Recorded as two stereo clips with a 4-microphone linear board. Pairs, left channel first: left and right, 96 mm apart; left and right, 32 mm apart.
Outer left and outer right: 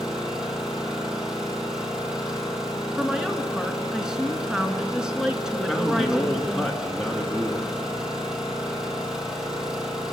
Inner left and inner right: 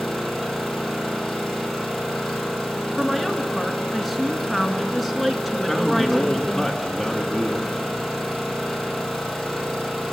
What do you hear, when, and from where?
0.0 s an engine running: 5° right (ahead or behind), 4 m
3.0 s a woman speaking: 5° right (ahead or behind), 1.4 m
5.7 s a man speaking: 5° right (ahead or behind), 1.9 m